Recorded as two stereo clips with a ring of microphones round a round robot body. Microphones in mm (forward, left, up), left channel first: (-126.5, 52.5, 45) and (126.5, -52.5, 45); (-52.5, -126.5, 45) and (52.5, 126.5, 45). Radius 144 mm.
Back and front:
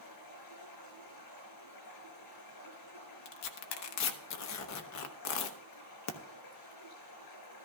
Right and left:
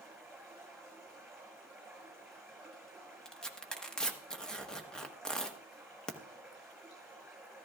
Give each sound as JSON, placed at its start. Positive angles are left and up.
{"t": 0.0, "sound": "running water", "azimuth_deg": 155, "distance_m": 6.0}
{"t": 3.2, "sound": "tearing paper", "azimuth_deg": 160, "distance_m": 1.0}